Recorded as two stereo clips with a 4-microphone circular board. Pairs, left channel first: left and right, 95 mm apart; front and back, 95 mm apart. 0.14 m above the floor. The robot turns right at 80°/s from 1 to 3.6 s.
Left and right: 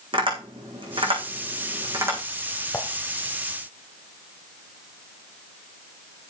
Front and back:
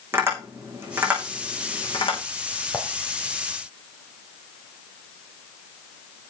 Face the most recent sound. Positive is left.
turn(degrees=120)